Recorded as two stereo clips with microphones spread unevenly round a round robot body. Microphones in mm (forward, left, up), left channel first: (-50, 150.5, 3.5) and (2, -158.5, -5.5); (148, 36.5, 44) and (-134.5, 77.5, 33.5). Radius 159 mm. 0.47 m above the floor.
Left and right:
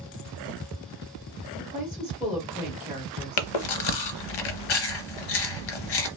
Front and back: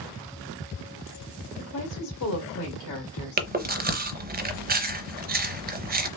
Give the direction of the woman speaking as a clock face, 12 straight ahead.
12 o'clock.